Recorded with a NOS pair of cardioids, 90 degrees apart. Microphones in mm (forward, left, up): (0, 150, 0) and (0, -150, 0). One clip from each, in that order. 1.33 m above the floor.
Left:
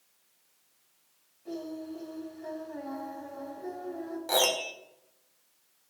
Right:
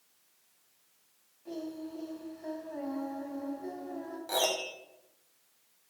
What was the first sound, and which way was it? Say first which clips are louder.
Singing: left 2 dB; 5° left.